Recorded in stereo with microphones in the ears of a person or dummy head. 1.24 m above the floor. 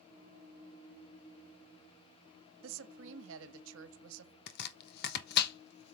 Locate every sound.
2.6 s a woman speaking: 75° right (ahead or behind), 1.2 m
4.5 s chopping: 65° left (ahead or behind), 1.1 m